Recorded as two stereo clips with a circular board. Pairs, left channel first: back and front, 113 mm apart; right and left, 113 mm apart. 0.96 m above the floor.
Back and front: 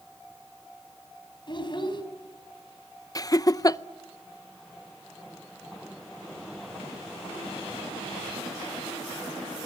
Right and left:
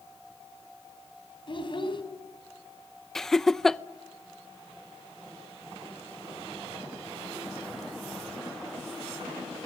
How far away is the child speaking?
About 4 m.